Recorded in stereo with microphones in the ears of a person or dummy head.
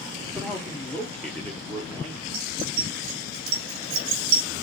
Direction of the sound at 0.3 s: 15° left (ahead or behind).